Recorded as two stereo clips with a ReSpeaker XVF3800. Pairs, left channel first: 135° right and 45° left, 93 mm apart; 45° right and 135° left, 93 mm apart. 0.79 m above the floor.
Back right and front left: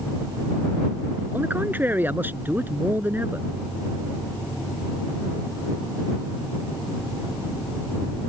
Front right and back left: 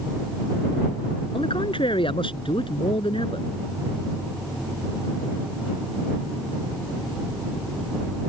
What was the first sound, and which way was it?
A man speaking, 25° right.